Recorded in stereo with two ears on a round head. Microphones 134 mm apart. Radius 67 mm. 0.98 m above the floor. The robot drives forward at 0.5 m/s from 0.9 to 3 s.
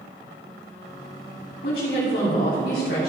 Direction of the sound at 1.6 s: 75° left (ahead or behind).